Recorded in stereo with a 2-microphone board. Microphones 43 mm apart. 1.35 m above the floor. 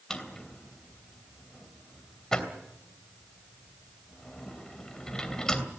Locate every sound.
0.1 s a drawer: 15° left (ahead or behind), 3 m